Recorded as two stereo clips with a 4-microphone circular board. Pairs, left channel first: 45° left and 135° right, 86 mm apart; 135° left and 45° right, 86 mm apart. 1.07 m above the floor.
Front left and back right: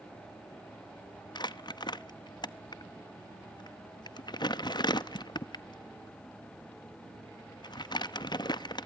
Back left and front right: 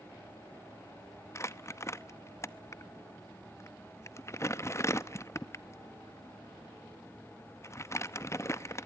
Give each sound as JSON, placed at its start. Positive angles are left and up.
{"t": 1.4, "sound": "crumpling", "azimuth_deg": 75, "distance_m": 0.8}